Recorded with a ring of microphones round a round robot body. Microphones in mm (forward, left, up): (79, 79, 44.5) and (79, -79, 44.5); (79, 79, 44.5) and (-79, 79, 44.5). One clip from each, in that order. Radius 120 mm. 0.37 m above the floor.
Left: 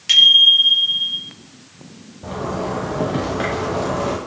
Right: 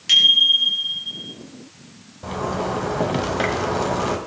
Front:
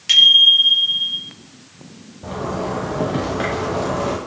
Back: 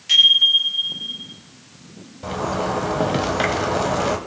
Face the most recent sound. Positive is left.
turn(degrees=-145)